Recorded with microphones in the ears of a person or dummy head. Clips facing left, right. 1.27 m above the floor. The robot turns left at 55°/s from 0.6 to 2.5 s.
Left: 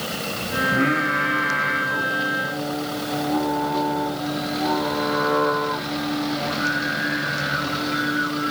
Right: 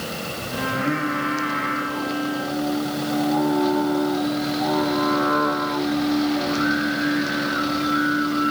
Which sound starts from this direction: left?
Singing, at 0.6 s.